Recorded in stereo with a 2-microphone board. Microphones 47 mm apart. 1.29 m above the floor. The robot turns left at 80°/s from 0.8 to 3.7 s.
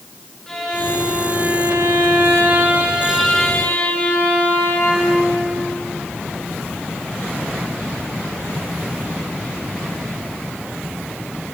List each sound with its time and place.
0.5 s a violin: 10° left, 7.5 m; by 5.2 s 140° left, 7.5 m